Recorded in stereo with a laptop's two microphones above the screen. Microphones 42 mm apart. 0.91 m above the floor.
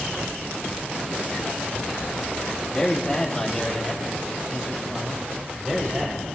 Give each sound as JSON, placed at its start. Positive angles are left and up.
{"t": 2.7, "sound": "a man speaking", "side_deg": 15, "distance_m": 5.5}